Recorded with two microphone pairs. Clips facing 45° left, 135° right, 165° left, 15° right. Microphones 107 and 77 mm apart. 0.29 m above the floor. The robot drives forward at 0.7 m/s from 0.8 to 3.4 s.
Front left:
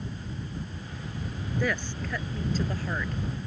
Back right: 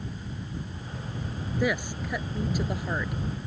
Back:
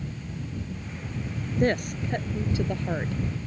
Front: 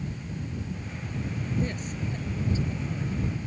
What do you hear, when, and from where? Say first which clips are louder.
1.6 s a woman speaking: back right 3 dB, back 7 dB; 145° left; by 3.2 s 150° left